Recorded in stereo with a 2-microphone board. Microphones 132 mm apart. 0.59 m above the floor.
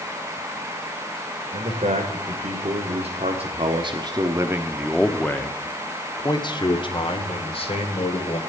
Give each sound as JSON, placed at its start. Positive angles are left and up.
{"t": 1.5, "sound": "a man speaking", "side_deg": -70, "distance_m": 1.9}